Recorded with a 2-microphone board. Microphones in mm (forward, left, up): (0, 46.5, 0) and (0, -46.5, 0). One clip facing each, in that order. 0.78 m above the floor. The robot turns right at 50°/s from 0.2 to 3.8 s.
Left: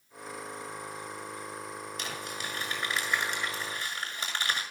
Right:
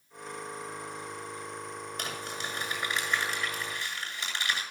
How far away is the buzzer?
No buzzer in this recording.